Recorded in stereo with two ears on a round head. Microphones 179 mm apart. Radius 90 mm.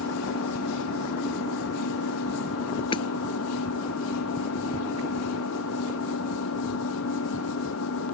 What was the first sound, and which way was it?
An engine running, 90° left.